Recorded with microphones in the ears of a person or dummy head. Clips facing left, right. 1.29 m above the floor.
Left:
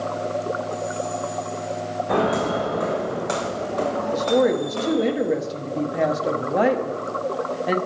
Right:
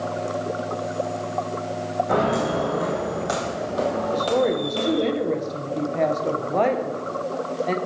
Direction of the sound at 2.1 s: 5° right (ahead or behind).